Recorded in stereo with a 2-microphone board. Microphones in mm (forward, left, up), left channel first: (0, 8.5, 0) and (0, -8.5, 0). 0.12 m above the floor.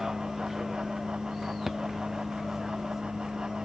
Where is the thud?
15° right (ahead or behind).